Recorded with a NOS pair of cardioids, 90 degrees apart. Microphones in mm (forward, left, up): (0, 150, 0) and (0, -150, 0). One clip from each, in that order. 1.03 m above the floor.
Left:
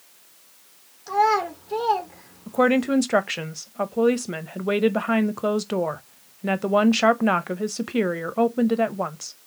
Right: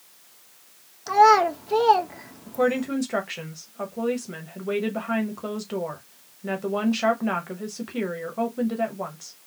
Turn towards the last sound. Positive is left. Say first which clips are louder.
# left 4 dB
turn(degrees=35)